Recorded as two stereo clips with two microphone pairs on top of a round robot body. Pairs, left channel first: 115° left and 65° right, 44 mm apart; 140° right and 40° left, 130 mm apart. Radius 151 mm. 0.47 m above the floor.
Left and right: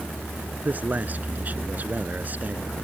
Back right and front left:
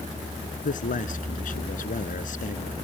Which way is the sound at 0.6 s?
115° right.